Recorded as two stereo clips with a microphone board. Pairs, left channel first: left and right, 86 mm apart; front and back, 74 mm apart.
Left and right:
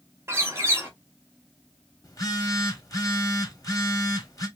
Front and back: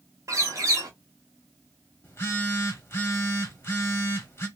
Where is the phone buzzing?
50° left, 1.1 m.